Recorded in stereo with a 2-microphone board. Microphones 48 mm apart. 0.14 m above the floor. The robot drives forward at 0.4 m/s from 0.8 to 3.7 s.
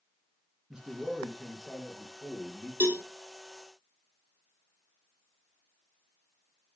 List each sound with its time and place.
0.7 s a man speaking: 20° right (ahead or behind), 1.7 m; by 2.7 s 15° right (ahead or behind), 2 m
2.8 s a cowbell: 65° right (ahead or behind), 1.4 m; by 3.0 s 60° right (ahead or behind), 1.4 m